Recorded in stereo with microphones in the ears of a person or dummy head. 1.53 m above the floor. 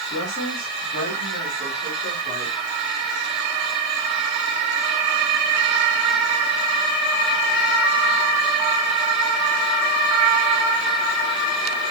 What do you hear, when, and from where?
0.1 s a woman speaking: 65° left (ahead or behind), 4 m; by 2.5 s 55° left (ahead or behind), 5 m